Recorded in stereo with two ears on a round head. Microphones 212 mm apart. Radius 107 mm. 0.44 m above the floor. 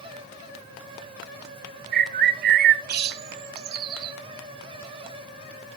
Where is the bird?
40° right (ahead or behind), 0.5 m.